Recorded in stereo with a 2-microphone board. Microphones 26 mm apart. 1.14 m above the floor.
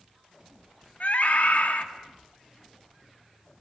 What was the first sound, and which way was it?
A scream, 65° left (ahead or behind).